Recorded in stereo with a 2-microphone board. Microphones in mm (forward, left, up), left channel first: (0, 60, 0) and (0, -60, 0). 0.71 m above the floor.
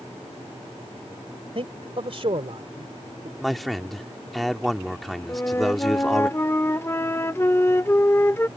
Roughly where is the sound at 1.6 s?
Right.